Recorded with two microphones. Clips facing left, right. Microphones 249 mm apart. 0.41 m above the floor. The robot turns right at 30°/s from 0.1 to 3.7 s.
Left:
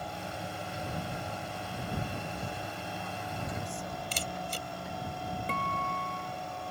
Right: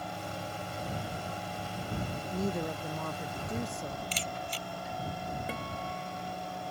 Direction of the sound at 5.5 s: 10° right (ahead or behind).